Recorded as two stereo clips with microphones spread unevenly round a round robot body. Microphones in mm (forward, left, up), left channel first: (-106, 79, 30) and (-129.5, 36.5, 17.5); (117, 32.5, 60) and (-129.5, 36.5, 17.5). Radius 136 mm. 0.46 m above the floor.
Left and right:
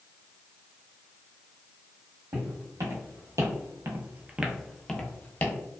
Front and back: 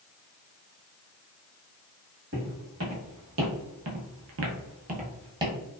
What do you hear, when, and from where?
2.3 s footsteps: 125° right, 1.3 m; by 5.6 s 100° left, 0.8 m